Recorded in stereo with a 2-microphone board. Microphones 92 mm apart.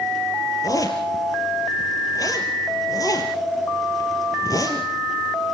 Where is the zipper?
45° left (ahead or behind), 3 m.